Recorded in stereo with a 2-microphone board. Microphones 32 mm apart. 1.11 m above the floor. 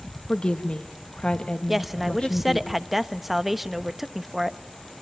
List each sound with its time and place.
0.3 s a woman speaking: 30° left (ahead or behind), 1.7 m
1.7 s a woman speaking: 5° right (ahead or behind), 1.0 m